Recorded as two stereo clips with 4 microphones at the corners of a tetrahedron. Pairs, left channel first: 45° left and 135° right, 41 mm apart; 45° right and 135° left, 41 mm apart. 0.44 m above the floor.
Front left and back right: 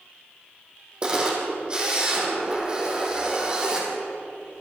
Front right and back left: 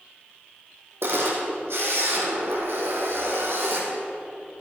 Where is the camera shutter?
155° left, 3.5 m.